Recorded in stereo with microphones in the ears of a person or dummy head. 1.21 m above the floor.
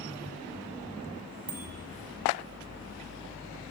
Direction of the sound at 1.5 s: 30° right (ahead or behind).